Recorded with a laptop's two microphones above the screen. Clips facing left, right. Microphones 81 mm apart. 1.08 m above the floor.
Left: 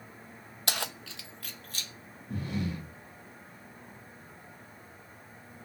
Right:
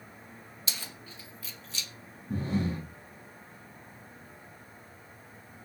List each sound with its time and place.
0.7 s keys jangling: 60° left (ahead or behind), 0.8 m; by 1.9 s 45° left (ahead or behind), 1.3 m
2.3 s breathing: 35° right (ahead or behind), 2 m